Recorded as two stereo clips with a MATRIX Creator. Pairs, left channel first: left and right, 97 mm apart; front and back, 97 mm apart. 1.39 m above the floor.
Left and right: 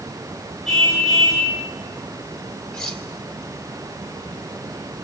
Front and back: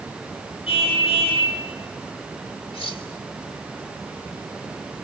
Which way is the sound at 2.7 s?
10° left.